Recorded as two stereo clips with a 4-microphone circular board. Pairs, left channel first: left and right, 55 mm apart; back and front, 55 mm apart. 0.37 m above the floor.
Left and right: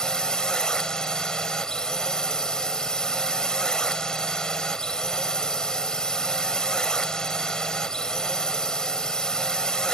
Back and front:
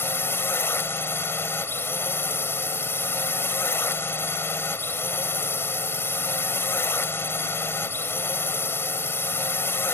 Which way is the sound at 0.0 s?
165° left.